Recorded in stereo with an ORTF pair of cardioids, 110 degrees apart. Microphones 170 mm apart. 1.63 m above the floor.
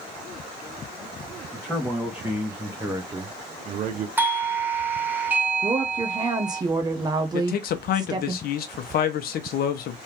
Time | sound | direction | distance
1.5 | a man speaking | 5° left | 1.7 m
4.2 | a doorbell | 10° right | 1.1 m
5.6 | a woman speaking | 25° right | 0.8 m
7.3 | a man speaking | 65° left | 1.1 m